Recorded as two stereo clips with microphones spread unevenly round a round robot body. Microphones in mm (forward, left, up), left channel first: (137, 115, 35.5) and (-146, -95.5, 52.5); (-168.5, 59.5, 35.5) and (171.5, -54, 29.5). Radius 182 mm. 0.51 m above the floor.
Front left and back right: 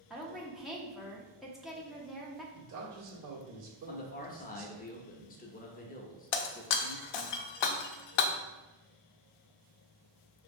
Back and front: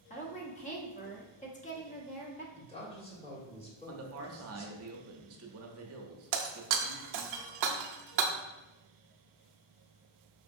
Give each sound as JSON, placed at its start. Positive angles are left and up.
{"t": 0.1, "sound": "a woman speaking", "azimuth_deg": 120, "distance_m": 1.0}
{"t": 2.5, "sound": "a man speaking", "azimuth_deg": -125, "distance_m": 1.4}
{"t": 3.9, "sound": "a man speaking", "azimuth_deg": -10, "distance_m": 0.8}
{"t": 6.3, "sound": "breaking glass", "azimuth_deg": 25, "distance_m": 0.6}